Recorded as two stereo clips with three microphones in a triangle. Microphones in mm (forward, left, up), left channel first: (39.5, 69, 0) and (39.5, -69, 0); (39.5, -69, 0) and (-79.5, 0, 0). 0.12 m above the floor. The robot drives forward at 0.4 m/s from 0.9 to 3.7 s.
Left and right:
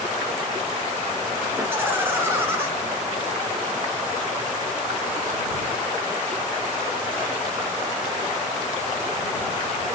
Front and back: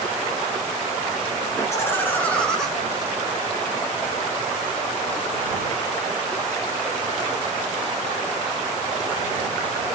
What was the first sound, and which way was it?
Laughter, 45° right.